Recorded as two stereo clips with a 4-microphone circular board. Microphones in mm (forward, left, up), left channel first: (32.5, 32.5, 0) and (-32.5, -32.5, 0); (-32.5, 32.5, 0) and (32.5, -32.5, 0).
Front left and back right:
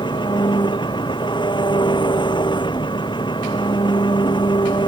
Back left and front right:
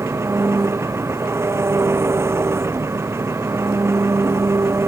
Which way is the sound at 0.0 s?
15° left.